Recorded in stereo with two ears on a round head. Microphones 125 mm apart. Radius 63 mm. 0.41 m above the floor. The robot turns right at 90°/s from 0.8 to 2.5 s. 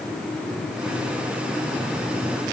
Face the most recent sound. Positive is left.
No sound to turn to.